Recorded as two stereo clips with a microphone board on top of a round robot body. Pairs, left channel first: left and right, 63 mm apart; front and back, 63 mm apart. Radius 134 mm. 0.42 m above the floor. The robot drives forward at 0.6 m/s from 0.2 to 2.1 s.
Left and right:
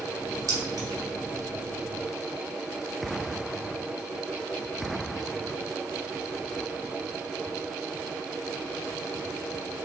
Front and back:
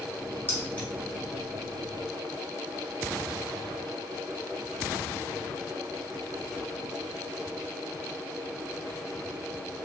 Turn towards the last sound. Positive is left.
turn(degrees=-110)